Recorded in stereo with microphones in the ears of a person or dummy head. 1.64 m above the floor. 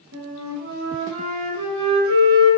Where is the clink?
No clink in this recording.